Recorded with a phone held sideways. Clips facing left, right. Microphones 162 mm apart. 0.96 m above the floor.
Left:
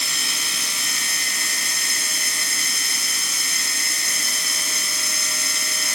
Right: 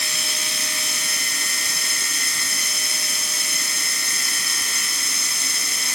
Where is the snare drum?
I don't hear a snare drum.